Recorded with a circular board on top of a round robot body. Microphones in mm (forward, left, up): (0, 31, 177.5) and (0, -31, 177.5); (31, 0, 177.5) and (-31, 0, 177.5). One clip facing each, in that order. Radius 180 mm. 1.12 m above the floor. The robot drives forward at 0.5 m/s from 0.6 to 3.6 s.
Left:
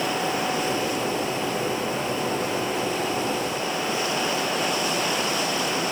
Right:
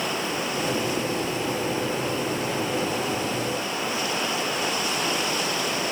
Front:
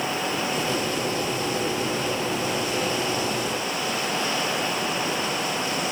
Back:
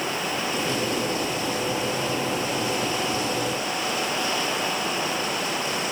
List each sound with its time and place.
Only background noise.